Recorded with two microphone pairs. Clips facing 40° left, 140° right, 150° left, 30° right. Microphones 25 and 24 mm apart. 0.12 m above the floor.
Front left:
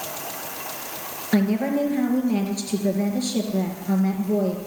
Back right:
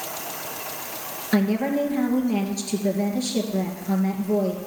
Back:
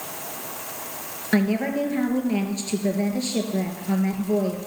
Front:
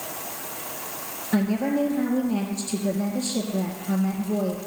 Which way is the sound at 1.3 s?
130° left.